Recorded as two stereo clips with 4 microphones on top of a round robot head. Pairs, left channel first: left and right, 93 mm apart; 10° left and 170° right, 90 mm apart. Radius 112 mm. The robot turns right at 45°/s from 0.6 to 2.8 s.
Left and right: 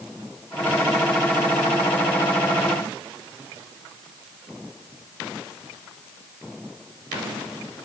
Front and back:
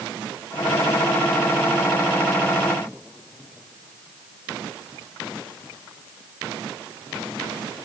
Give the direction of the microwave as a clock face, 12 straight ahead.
No microwave in this recording.